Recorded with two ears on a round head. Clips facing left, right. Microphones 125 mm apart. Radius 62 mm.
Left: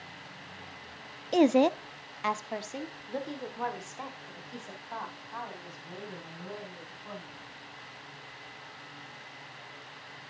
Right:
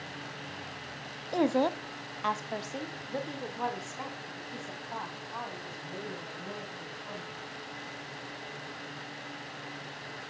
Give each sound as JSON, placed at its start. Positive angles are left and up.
{"t": 1.3, "sound": "a woman speaking", "side_deg": 20, "distance_m": 0.5}